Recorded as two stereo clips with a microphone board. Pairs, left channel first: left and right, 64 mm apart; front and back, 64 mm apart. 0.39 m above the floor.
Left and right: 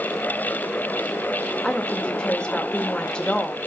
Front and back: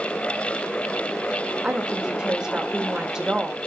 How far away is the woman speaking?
About 1.0 m.